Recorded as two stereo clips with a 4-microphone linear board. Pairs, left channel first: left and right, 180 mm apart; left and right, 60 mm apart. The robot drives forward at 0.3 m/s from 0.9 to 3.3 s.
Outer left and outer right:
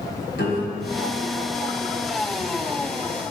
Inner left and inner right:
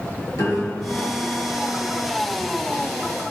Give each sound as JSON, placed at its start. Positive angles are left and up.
{"t": 0.3, "sound": "a piano", "side_deg": 75, "distance_m": 1.8}